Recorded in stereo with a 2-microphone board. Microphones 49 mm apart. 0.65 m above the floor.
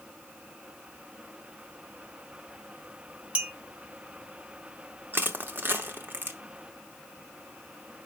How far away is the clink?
About 0.7 m.